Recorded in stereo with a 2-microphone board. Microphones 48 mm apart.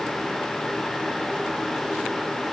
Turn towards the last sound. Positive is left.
No sound to turn to.